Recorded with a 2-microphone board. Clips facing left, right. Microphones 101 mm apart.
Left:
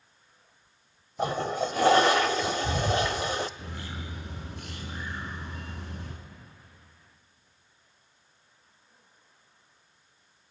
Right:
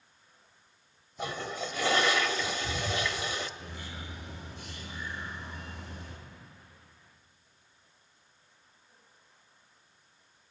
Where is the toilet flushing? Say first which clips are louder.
Left 8 dB; 45° left (ahead or behind), 0.6 m.